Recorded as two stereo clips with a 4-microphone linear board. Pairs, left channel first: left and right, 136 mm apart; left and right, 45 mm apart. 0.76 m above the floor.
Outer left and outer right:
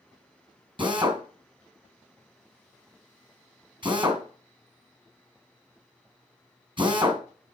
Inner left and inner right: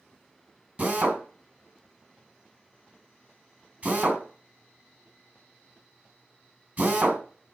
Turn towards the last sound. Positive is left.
turn(degrees=-35)  # may be behind; listen again after turning